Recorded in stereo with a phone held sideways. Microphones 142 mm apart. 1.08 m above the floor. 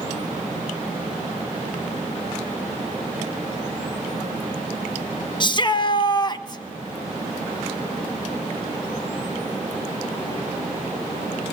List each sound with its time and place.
5.4 s a shout: 35° left (ahead or behind), 0.8 m; by 6.6 s 30° left (ahead or behind), 1.4 m